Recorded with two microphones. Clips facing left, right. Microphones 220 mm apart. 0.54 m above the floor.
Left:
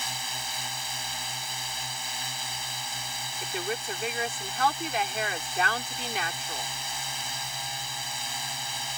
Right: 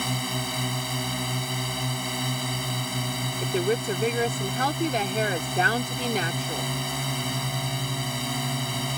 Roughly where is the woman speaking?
Right.